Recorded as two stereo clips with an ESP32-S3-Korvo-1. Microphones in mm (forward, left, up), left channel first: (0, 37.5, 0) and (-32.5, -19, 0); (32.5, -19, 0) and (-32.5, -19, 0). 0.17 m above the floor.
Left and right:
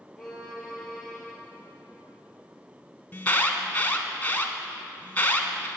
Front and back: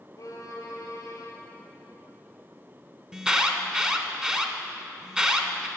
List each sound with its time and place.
0.2 s a violin: 25° right, 2.5 m
3.1 s an alarm: 110° left, 1.1 m